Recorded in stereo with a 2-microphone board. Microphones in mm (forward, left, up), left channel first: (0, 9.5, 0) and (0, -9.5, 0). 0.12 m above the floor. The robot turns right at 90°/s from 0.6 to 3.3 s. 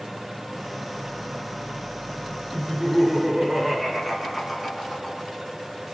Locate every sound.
2.5 s laughter: 15° left (ahead or behind), 1.2 m; by 5.3 s 10° right (ahead or behind), 1.2 m